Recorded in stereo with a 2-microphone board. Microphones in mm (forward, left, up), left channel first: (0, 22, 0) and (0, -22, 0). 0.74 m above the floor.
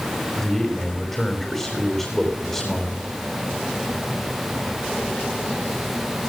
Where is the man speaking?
5° left (ahead or behind), 4.5 m.